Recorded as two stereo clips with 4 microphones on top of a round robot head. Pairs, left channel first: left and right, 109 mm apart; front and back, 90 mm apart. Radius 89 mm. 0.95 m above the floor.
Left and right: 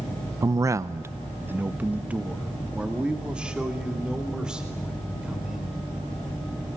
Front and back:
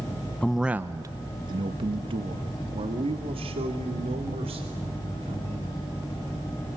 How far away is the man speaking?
About 0.6 m.